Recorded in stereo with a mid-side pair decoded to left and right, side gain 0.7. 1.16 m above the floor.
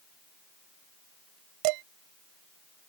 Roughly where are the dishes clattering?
Right.